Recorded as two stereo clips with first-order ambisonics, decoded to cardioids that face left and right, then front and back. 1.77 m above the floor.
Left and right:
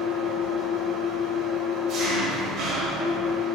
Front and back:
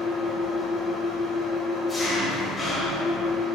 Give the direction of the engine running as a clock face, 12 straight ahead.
3 o'clock.